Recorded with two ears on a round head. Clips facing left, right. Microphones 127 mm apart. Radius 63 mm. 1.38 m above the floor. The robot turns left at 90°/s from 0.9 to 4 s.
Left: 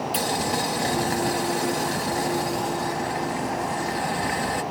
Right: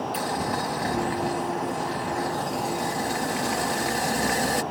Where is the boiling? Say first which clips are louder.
Left 3 dB; 150° left; by 4.6 s 130° right.